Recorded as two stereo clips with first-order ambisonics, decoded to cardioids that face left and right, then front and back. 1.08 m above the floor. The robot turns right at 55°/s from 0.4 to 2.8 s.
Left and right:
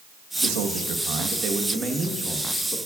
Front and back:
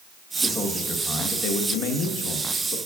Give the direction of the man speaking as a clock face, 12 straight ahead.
3 o'clock.